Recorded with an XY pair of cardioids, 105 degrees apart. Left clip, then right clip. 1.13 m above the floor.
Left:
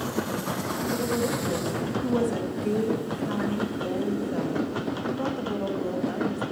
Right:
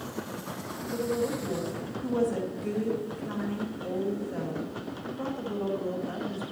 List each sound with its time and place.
0.9 s a woman speaking: 35° left, 2.0 m